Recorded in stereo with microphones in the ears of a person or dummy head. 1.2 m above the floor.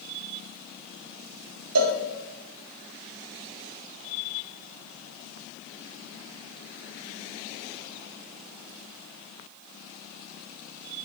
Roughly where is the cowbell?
Right.